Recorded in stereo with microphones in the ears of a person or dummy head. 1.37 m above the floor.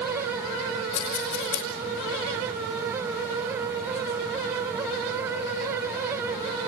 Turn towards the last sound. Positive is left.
turn(degrees=65)  # may be behind; listen again after turning